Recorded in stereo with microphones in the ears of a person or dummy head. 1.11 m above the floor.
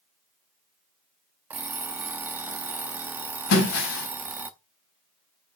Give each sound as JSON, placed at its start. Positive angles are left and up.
{"t": 1.5, "sound": "an alarm clock", "side_deg": -10, "distance_m": 0.6}
{"t": 3.5, "sound": "breaking glass", "side_deg": 70, "distance_m": 3.5}